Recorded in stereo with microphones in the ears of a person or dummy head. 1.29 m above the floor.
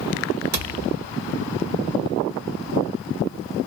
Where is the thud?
45° right (ahead or behind), 1.4 m.